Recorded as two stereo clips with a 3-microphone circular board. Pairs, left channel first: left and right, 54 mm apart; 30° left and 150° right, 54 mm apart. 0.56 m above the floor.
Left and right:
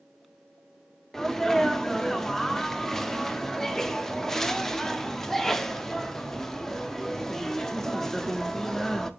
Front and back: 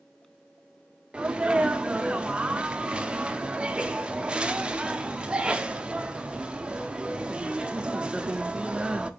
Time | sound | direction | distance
1.1 | a sneeze | 165° left | 0.8 m